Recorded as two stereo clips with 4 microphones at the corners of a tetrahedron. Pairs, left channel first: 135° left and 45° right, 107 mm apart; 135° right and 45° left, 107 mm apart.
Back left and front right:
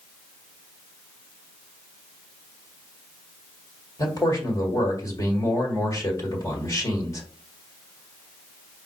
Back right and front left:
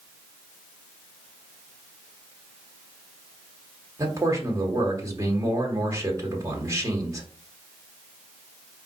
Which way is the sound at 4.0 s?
95° left.